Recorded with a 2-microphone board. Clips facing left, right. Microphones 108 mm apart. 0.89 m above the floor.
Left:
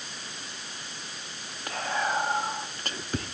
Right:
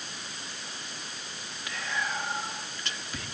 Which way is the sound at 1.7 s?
50° left (ahead or behind).